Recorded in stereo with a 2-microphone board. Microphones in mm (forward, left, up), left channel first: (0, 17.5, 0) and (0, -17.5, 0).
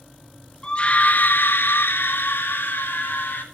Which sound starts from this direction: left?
A scream, at 0.6 s.